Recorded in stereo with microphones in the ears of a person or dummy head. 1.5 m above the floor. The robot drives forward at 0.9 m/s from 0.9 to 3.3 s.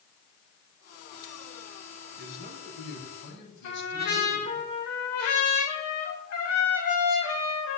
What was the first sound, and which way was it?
A man speaking, 50° left (ahead or behind).